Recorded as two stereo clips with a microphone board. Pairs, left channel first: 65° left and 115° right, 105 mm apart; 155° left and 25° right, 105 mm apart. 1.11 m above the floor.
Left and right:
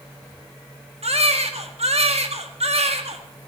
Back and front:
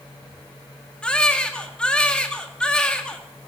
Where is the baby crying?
120° right, 1.8 m.